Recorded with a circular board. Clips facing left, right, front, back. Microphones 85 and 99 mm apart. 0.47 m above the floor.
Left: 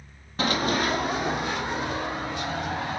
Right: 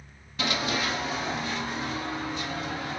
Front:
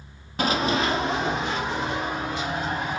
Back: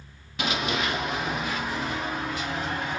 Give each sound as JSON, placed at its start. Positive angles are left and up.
{"t": 0.4, "sound": "running footsteps", "azimuth_deg": 45, "distance_m": 0.8}